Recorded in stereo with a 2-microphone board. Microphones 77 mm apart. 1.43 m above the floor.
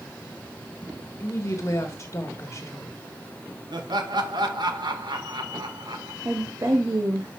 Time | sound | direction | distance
1.2 | a woman speaking | 40° left (ahead or behind) | 1.7 m
3.7 | laughter | 65° right (ahead or behind) | 1.7 m
6.2 | a woman speaking | 45° right (ahead or behind) | 1.2 m